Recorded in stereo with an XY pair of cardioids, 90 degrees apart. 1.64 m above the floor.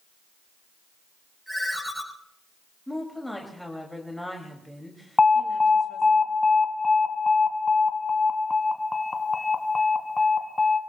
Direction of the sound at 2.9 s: Straight ahead.